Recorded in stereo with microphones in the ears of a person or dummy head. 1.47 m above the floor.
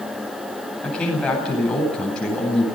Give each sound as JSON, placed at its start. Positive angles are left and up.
{"t": 0.8, "sound": "a man speaking", "side_deg": 5, "distance_m": 9.5}